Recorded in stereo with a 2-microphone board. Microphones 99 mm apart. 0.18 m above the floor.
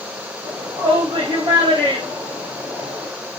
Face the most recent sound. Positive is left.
turn(degrees=-60)  # may be behind; listen again after turning